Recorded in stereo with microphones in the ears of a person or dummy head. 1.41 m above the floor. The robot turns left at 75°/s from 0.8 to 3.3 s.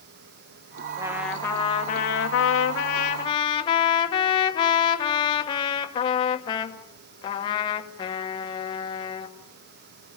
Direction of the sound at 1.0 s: 155° right.